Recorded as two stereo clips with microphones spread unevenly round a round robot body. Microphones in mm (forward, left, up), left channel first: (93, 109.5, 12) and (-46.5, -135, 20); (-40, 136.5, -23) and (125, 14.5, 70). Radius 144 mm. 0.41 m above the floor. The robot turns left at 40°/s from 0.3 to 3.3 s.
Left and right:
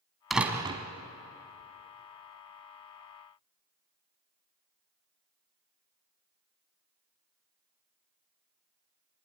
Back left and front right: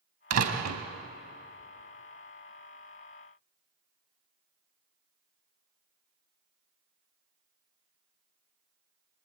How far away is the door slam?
About 2 m.